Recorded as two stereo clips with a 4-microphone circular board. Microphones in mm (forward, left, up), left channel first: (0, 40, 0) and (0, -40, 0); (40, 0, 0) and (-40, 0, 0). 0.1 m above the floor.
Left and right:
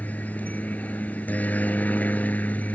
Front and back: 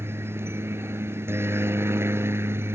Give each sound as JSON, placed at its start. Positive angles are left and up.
{"t": 0.0, "sound": "a helicopter", "azimuth_deg": 150}